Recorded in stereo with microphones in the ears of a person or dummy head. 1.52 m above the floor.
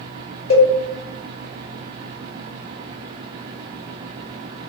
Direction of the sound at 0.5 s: 35° left (ahead or behind).